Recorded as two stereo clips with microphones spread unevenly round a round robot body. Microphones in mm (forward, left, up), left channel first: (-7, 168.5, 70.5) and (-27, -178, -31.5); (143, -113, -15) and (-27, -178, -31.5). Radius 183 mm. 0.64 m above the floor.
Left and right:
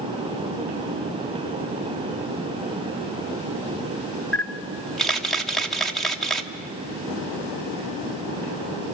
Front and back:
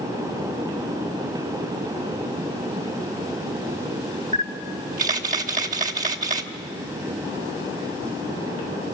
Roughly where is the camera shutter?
Behind.